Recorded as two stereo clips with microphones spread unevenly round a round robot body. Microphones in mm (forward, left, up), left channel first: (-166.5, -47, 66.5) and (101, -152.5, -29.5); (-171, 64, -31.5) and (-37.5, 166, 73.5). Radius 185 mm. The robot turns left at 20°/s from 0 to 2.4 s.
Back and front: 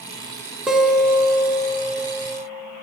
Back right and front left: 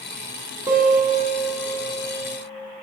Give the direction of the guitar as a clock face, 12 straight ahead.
3 o'clock.